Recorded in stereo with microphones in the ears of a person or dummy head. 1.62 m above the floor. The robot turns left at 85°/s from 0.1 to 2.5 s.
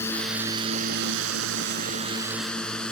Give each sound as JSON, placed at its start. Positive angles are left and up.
{"t": 0.0, "sound": "a drone", "side_deg": 15}